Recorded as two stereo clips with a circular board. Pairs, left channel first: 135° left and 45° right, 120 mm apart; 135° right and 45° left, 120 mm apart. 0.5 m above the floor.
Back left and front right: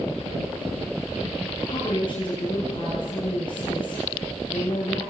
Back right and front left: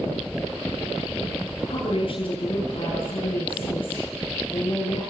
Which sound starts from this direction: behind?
A woman speaking, at 1.7 s.